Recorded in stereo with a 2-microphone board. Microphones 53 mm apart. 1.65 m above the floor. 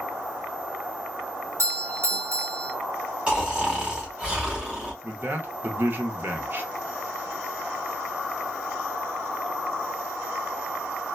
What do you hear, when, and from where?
1.6 s a doorbell: 65° right (ahead or behind), 1.3 m
3.3 s snoring: 20° right (ahead or behind), 1.3 m
5.0 s a man speaking: 40° right (ahead or behind), 0.8 m